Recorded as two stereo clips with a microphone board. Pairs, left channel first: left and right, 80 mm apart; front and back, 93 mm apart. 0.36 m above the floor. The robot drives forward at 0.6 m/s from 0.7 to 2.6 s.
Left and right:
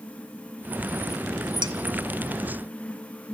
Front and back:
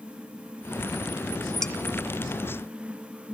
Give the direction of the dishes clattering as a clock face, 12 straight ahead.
3 o'clock.